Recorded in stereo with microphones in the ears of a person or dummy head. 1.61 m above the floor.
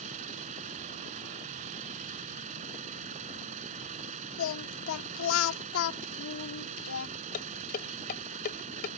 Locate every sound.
0.0 s an engine running: 40° right (ahead or behind)
4.4 s singing: 70° left (ahead or behind)
7.3 s dishes clattering: 50° left (ahead or behind)